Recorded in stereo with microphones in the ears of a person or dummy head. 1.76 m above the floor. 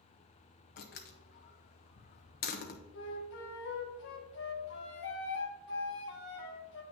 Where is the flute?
65° left (ahead or behind), 1.3 m.